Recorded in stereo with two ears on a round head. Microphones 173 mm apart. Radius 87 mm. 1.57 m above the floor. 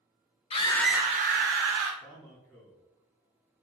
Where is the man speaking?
10° left (ahead or behind), 3 m.